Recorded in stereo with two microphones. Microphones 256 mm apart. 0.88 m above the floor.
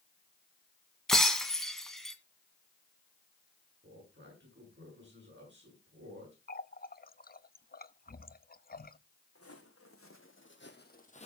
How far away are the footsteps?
About 4 m.